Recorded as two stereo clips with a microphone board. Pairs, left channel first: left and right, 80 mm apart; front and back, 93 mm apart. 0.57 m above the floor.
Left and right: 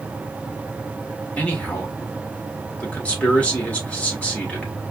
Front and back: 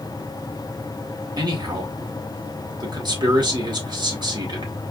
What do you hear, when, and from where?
1.4 s a man speaking: 160° left, 1.8 m